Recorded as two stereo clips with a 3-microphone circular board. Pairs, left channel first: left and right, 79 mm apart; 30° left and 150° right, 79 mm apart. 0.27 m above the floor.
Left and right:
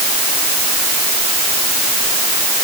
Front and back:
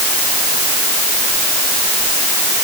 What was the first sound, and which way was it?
Only background noise.